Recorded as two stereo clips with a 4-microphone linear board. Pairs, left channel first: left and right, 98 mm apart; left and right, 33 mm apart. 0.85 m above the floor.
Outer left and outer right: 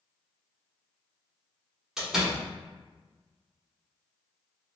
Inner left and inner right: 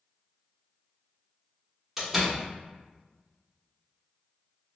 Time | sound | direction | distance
2.0 | a door slam | 5° right (ahead or behind) | 1.2 m